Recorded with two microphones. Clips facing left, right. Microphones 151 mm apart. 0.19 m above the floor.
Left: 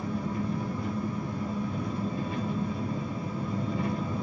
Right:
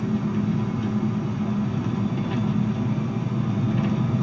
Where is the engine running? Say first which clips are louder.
Right 7 dB; 80° right, 1.1 m.